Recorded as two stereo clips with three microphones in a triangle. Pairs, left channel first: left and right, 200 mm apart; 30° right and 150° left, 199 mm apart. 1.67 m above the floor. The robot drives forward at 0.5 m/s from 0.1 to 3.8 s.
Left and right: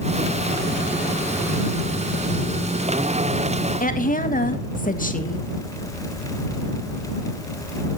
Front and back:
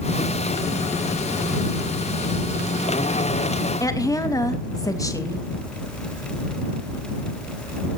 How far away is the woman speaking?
About 1.8 m.